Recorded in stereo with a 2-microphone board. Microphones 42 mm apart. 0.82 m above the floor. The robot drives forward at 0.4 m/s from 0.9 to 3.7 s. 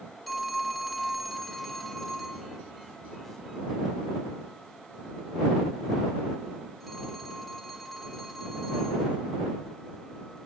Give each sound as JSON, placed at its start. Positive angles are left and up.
{"t": 0.3, "sound": "a phone ringing", "side_deg": 0, "distance_m": 0.9}